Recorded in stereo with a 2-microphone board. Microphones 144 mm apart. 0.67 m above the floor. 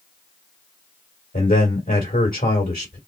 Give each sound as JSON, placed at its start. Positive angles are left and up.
{"t": 1.3, "sound": "a man speaking", "side_deg": 75, "distance_m": 2.0}